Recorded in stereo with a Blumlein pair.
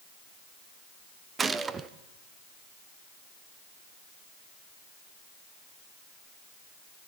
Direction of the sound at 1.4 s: 15° right.